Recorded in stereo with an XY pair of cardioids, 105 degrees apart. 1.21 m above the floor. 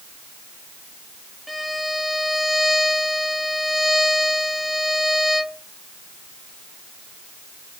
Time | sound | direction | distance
1.5 | a violin | straight ahead | 1.1 m